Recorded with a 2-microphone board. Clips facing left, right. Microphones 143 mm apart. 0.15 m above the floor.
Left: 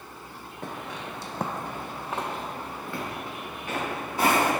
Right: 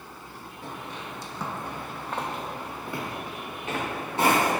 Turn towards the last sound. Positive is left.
turn(degrees=-25)  # may be behind; listen again after turning